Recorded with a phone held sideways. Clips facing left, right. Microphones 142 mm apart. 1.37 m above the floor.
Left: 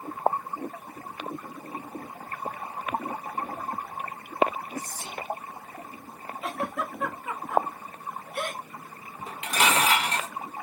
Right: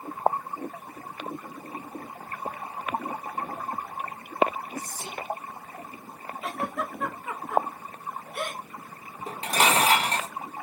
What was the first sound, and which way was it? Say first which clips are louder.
Whispering: even; 10° right (ahead or behind).